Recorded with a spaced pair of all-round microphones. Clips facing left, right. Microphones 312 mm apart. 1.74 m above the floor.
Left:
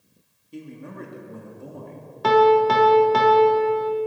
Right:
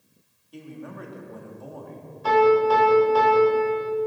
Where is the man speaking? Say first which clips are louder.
Left 1 dB; 30° left (ahead or behind), 3 m.